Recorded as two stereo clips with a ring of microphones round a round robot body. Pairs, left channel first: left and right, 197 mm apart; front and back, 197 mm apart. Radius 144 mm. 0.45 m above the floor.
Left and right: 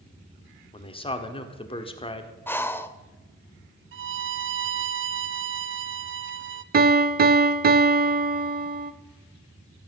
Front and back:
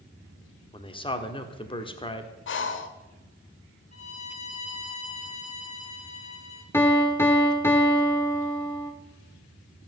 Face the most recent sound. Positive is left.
turn(degrees=-75)